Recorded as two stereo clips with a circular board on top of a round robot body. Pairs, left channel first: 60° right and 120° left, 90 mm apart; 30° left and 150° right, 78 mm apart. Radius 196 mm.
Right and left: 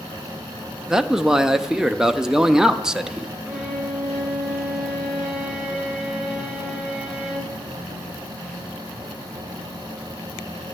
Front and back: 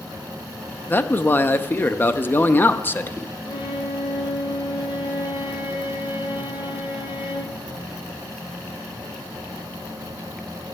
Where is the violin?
40° left, 1.3 m.